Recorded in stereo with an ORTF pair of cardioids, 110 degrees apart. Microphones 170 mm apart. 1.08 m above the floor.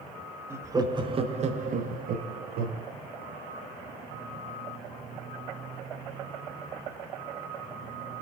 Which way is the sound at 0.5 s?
15° right.